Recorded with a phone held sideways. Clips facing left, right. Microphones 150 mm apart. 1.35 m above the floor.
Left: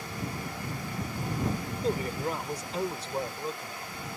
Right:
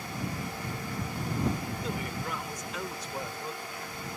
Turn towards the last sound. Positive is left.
turn(degrees=25)  # may be behind; listen again after turning